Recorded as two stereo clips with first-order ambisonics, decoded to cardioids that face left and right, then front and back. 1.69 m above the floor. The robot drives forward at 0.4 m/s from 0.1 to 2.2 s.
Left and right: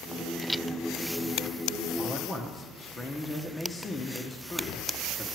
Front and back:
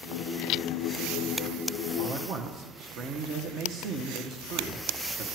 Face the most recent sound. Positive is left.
turn(degrees=160)